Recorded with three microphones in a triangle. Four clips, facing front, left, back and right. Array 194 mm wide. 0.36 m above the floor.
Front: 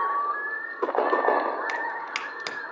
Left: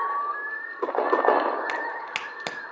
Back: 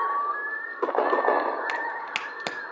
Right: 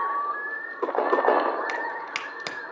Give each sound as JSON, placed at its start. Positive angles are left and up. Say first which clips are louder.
{"t": 1.7, "sound": "a crack", "louder": "even, even", "azimuth_deg": 150, "distance_m": 0.6}